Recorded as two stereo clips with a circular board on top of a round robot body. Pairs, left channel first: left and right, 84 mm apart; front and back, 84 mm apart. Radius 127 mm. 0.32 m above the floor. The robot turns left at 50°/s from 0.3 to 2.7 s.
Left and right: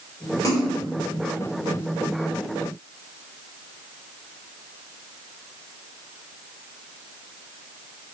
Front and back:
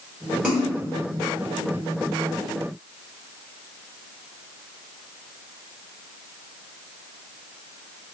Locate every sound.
0.4 s a splash: 110° left, 1.7 m; by 0.7 s 95° left, 1.7 m